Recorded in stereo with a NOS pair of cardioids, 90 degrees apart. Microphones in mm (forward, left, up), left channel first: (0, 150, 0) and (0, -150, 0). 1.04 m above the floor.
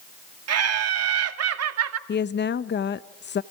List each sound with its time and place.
0.5 s laughter: 55° right, 2 m
2.1 s a woman speaking: 35° left, 0.7 m